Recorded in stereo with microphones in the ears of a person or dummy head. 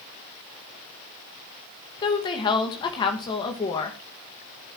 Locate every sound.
2.0 s a woman speaking: 30° left (ahead or behind), 2 m